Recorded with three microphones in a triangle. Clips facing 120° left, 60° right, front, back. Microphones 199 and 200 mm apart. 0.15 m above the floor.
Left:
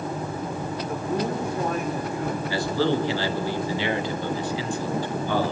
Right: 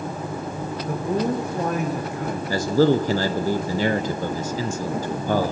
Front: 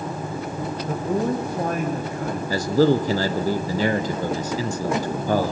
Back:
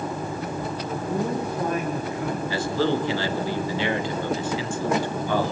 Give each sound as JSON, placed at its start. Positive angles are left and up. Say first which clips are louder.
{"t": 0.9, "sound": "a man speaking", "louder": "right 4 dB, front 4 dB", "azimuth_deg": -35, "distance_m": 7.0}
{"t": 2.5, "sound": "a man speaking", "louder": "right 7 dB, front 7 dB", "azimuth_deg": -30, "distance_m": 2.0}